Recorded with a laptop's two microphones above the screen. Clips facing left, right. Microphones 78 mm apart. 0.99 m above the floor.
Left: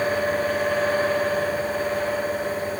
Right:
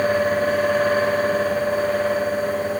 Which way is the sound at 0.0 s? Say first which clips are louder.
Right 4 dB; 80° right.